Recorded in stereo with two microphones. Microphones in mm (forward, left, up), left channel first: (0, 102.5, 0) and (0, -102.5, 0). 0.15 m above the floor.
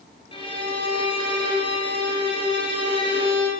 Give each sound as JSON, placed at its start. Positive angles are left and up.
{"t": 0.3, "sound": "a violin", "side_deg": 25, "distance_m": 2.5}